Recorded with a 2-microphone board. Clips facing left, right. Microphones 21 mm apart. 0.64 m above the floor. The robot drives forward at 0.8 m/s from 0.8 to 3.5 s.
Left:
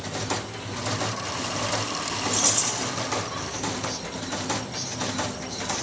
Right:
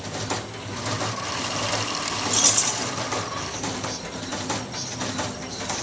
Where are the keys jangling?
35° right (ahead or behind), 0.7 m; by 2.9 s 25° right (ahead or behind), 1.0 m.